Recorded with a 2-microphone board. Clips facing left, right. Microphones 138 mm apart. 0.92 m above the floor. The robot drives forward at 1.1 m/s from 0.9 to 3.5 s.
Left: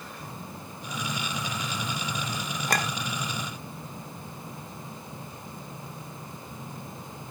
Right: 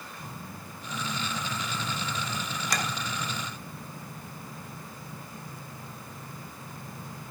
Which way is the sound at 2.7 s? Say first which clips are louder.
Left 4 dB; 55° left (ahead or behind).